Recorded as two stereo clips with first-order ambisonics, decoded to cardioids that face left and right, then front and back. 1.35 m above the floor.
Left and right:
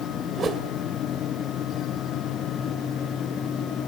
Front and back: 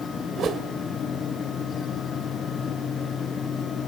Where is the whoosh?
140° right, 1.3 m.